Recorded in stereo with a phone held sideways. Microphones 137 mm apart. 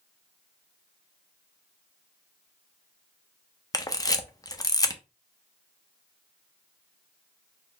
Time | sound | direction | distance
3.7 | a camera shutter | 25° left (ahead or behind) | 0.6 m